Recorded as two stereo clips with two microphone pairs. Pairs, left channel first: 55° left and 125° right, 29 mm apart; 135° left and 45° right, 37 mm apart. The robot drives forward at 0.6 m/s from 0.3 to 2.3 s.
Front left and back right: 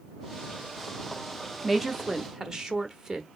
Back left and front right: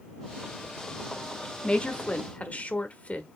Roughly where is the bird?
I don't hear a bird.